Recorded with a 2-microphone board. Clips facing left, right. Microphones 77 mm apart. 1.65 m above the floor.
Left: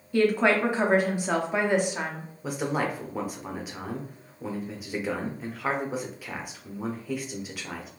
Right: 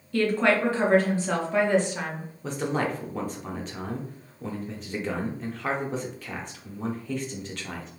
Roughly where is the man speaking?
Centre.